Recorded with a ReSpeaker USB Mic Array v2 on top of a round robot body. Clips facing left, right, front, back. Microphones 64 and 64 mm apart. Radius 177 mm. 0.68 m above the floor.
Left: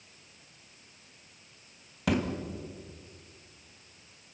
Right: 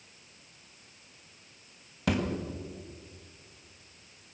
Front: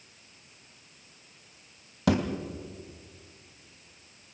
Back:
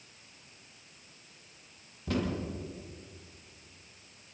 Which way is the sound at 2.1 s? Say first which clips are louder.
Left 1 dB, front 7 dB; straight ahead.